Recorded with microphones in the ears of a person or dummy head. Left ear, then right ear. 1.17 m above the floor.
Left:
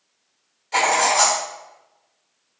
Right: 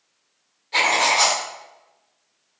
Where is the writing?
40° left (ahead or behind), 1.4 m.